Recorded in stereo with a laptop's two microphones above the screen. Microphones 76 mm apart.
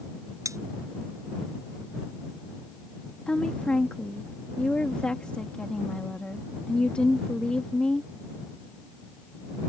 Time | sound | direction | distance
0.5 | cutlery clinking | 45° right (ahead or behind) | ?
3.3 | a woman speaking | 15° left (ahead or behind) | ?